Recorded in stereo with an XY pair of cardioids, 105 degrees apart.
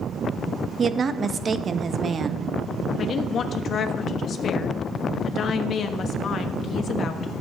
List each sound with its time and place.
0.8 s a woman speaking: 40° right, 0.8 m
3.0 s a woman speaking: 55° left, 1.2 m